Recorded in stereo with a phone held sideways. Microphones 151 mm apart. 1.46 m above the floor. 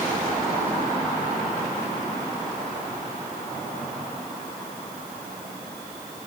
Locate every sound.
Only background noise.